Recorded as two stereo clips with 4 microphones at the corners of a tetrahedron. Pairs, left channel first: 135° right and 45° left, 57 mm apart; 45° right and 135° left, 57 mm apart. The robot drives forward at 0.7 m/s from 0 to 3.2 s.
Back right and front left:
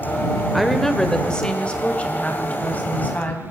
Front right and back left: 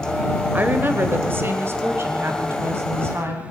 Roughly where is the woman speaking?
Behind left.